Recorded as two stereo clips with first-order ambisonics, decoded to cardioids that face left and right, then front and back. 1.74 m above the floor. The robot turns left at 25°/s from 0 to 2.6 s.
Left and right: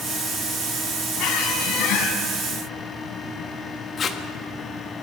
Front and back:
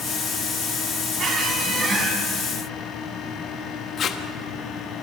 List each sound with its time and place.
1.2 s a squeak: 125° left, 4 m; by 2.2 s 100° left, 4 m
4.0 s tape being pulled: 35° left, 1.3 m